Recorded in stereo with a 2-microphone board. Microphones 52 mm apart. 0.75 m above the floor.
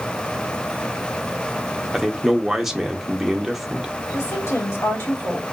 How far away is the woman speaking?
About 2.0 m.